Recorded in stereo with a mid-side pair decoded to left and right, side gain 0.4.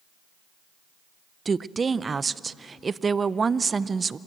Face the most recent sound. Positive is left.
turn(degrees=-35)